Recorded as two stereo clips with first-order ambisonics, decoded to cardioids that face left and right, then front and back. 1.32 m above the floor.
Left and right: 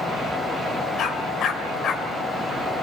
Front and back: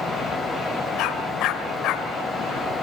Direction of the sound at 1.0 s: 35° left.